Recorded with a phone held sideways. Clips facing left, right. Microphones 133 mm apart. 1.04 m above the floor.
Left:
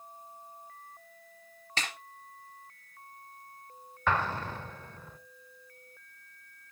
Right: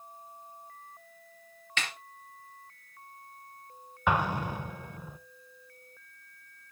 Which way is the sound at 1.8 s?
35° left (ahead or behind).